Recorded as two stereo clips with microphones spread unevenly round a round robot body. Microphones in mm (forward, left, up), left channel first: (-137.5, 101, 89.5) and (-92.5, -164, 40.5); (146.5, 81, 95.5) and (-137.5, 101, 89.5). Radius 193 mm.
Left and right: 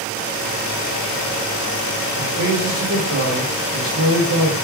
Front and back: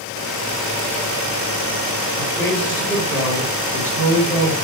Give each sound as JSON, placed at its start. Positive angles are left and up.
{"t": 2.2, "sound": "a man speaking", "azimuth_deg": -100, "distance_m": 2.0}